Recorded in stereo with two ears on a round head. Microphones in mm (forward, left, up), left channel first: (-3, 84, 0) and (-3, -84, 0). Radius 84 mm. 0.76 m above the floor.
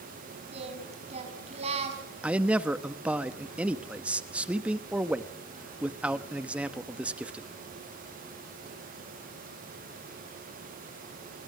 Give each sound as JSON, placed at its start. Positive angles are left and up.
{"t": 0.5, "sound": "singing", "side_deg": -35, "distance_m": 5.0}
{"t": 2.2, "sound": "a man speaking", "side_deg": -5, "distance_m": 0.9}